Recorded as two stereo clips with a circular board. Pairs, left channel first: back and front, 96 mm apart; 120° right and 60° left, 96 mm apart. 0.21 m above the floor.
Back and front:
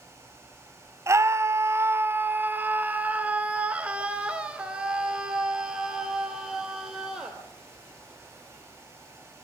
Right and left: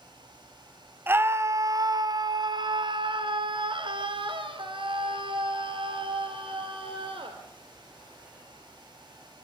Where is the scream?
15° left, 1.2 m; by 7.4 s 85° left, 4.5 m.